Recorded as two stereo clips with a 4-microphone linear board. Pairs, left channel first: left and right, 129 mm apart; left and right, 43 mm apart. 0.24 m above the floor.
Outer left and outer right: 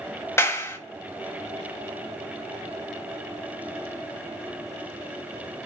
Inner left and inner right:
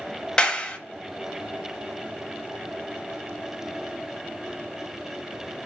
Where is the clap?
20° left (ahead or behind), 0.8 m.